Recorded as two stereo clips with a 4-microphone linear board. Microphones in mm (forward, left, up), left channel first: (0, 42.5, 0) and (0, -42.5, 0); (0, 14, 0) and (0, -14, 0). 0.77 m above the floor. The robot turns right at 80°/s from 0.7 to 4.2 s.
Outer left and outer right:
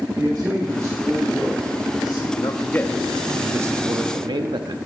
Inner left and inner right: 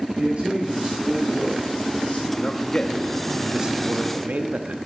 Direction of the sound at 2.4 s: 115° left.